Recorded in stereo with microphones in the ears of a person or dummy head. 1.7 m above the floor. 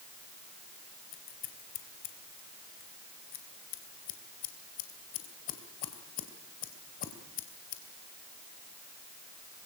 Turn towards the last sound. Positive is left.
turn(degrees=40)  # may be behind; listen again after turning